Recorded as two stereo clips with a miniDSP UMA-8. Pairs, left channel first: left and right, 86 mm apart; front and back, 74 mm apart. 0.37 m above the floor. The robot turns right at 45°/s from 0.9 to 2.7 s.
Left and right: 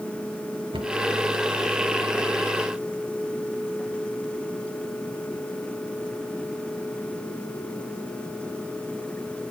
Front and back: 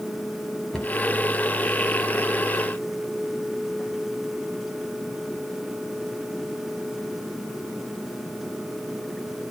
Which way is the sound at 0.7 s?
85° right.